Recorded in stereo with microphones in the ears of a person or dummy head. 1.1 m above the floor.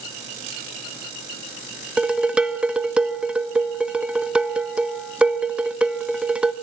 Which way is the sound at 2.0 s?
Centre (ahead or behind).